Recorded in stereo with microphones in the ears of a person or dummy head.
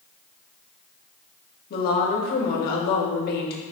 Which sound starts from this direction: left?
A woman speaking, at 1.7 s.